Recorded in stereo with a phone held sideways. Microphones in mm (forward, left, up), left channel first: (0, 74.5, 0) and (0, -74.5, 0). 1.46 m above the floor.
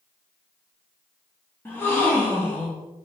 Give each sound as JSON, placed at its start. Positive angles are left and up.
{"t": 1.6, "sound": "a gasp", "side_deg": 15, "distance_m": 0.7}